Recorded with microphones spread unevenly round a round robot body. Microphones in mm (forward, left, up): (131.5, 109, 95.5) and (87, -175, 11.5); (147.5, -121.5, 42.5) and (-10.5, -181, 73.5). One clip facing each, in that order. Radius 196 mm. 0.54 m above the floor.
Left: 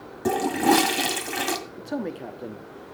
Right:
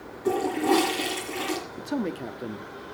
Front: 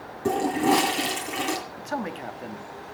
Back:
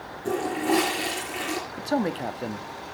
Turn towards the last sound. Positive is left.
turn(degrees=-120)